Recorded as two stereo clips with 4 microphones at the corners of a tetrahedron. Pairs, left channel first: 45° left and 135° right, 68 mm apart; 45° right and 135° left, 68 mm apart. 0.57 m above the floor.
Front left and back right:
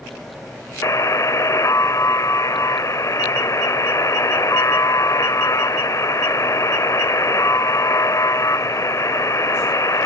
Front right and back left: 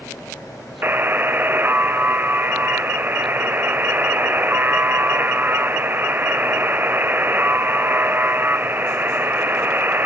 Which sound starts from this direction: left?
A buzzer, at 0.8 s.